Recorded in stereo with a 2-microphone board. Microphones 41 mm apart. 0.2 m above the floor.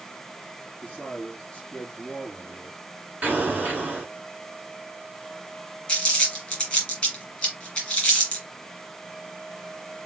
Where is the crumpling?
20° left (ahead or behind), 3 m.